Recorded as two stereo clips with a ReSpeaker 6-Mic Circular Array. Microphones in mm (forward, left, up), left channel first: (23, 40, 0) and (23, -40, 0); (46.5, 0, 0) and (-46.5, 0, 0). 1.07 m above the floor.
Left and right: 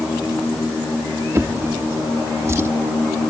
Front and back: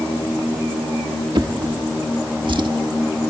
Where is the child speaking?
I don't hear a child speaking.